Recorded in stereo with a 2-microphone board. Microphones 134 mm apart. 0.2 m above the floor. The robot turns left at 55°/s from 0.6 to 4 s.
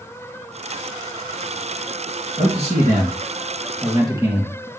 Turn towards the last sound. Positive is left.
turn(degrees=-145)